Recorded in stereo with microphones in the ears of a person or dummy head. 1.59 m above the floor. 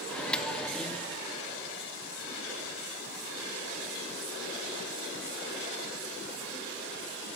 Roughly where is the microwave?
Centre.